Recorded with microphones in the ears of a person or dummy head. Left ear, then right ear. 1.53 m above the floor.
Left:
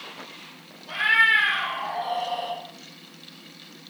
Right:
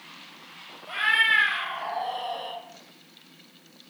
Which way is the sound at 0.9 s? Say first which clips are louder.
Left 3 dB; 55° right (ahead or behind).